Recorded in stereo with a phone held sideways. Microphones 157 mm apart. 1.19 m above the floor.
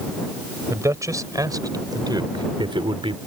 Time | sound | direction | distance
0.7 | a man speaking | 20° right (ahead or behind) | ?